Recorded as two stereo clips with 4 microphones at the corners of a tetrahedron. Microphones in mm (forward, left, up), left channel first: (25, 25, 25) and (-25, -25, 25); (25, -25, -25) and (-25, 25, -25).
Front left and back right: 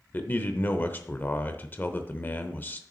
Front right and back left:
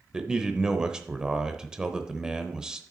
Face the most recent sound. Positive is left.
turn(degrees=65)